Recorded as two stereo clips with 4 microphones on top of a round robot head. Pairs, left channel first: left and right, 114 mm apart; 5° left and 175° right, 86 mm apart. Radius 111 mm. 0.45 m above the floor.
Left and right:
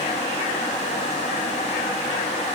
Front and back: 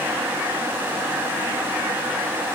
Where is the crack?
I don't hear a crack.